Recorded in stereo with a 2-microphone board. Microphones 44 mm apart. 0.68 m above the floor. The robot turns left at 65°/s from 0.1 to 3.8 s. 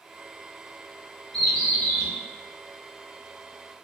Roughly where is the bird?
Behind.